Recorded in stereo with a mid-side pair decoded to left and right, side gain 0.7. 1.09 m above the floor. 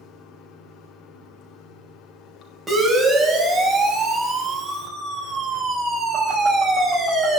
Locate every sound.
0.0 s running water: 55° left, 4 m
2.7 s a siren: 15° right, 7 m